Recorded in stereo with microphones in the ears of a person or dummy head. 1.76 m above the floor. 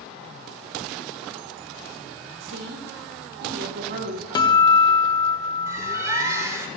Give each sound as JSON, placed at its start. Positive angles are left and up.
{"t": 2.4, "sound": "a woman speaking", "side_deg": -60, "distance_m": 2.5}
{"t": 4.3, "sound": "a guitar", "side_deg": 25, "distance_m": 0.7}
{"t": 5.7, "sound": "a bird", "side_deg": -20, "distance_m": 3.5}